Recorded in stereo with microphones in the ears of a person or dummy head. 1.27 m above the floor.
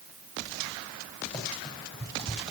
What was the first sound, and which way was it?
Running footsteps, 30° left (ahead or behind).